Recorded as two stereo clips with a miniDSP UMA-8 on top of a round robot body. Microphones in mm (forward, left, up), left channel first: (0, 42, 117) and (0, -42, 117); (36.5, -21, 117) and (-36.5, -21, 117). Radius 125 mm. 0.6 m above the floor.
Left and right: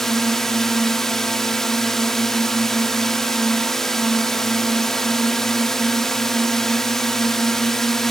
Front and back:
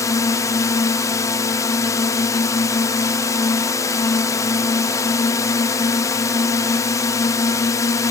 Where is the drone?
5° left.